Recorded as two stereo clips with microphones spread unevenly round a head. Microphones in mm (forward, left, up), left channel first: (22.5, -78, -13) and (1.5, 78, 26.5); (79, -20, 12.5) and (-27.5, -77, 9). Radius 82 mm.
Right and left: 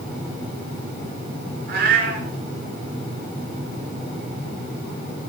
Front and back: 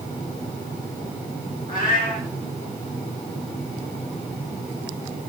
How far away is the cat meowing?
About 3 m.